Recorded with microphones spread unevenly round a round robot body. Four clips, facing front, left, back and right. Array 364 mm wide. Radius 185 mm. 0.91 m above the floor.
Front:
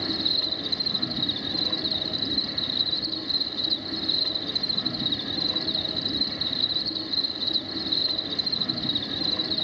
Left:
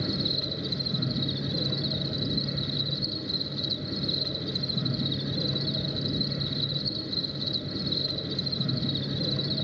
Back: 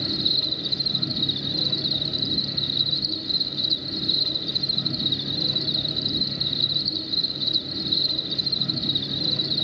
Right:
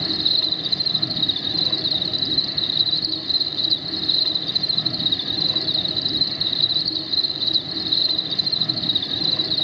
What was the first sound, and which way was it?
An insect, 110° left.